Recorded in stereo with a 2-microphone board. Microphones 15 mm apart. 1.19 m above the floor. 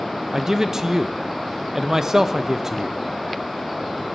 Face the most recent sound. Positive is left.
turn(degrees=-30)  # may be behind; listen again after turning